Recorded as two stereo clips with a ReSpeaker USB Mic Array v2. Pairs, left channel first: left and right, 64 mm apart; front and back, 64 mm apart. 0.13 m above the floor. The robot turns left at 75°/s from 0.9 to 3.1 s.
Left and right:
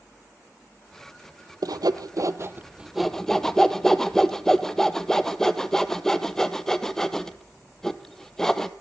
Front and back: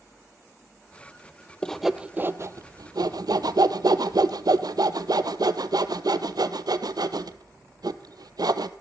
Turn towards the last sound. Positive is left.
turn(degrees=175)